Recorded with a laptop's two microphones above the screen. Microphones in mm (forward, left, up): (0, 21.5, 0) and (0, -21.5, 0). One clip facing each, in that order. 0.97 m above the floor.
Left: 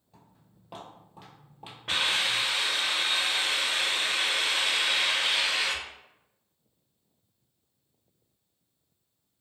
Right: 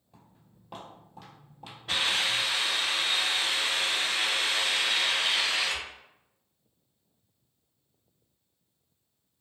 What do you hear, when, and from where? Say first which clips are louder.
0.1 s footsteps: even; 5° right (ahead or behind), 1.6 m; by 2.5 s 35° left (ahead or behind), 1.5 m
1.9 s a hiss: left 1 dB; 65° left (ahead or behind), 1.1 m